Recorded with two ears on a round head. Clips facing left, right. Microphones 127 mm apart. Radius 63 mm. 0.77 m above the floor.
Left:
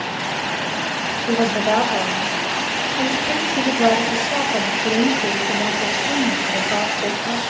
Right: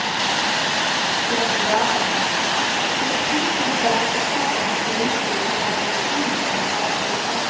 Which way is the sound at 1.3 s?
65° left (ahead or behind).